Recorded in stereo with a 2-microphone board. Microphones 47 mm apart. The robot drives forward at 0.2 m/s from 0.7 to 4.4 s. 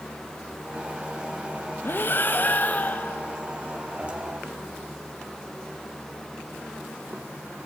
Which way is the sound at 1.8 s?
45° left (ahead or behind).